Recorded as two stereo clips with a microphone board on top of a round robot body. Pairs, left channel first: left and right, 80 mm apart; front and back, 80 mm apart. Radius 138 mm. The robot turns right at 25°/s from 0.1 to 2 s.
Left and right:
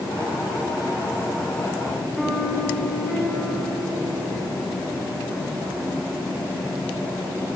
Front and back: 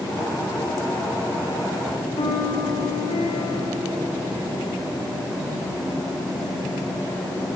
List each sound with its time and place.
2.2 s a piano: straight ahead, 6.5 m